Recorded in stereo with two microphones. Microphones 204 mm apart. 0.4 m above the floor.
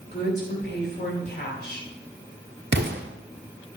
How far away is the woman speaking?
About 2.5 m.